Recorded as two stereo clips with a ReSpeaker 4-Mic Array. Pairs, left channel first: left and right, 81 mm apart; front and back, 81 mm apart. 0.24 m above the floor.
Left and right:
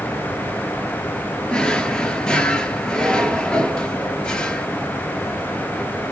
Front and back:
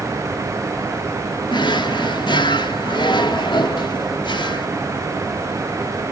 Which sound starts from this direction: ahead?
A drawer, at 1.5 s.